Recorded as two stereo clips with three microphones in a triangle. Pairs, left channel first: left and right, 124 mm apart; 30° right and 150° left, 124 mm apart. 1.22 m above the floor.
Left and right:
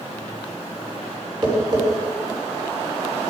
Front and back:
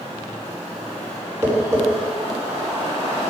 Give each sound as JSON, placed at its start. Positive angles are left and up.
{"t": 1.4, "sound": "tapping", "azimuth_deg": -145, "distance_m": 4.0}